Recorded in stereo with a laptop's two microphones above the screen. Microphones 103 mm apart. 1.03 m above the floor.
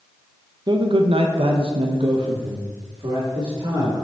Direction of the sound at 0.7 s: 45° right (ahead or behind).